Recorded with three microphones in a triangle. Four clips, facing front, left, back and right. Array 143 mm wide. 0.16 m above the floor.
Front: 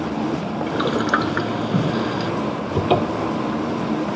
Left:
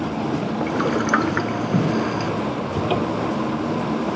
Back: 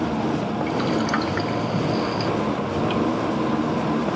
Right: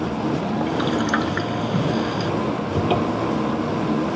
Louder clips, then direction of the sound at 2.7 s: Right 1 dB, front 5 dB; straight ahead.